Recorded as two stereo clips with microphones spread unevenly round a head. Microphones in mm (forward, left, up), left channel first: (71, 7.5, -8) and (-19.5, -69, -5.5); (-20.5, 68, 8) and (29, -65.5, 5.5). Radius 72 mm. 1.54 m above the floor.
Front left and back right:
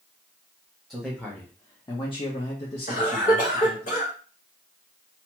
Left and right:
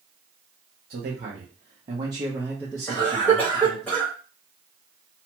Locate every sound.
0.9 s a man speaking: 50° right, 1.0 m; by 3.9 s 40° left, 1.3 m
2.9 s a cough: 30° left, 1.5 m